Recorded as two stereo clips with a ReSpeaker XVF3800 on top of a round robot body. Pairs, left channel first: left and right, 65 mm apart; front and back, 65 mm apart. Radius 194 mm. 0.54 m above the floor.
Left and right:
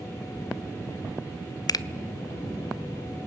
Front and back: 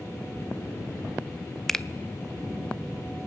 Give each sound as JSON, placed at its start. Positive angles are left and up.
{"t": 1.7, "sound": "a finger snap", "azimuth_deg": 85, "distance_m": 0.8}